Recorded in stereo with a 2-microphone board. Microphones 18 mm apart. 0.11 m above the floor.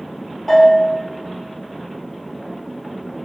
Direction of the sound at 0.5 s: 20° left (ahead or behind).